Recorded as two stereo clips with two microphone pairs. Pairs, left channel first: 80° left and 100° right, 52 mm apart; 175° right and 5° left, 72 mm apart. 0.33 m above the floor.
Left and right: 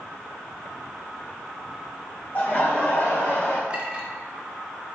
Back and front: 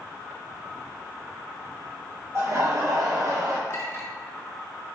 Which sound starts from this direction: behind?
A clink, at 3.7 s.